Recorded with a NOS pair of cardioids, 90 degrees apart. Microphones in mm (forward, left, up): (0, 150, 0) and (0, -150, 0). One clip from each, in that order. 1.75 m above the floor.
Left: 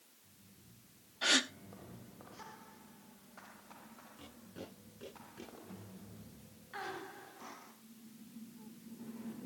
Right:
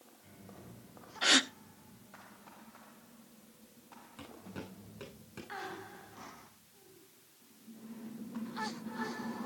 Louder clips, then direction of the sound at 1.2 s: Right 4 dB; 20° right.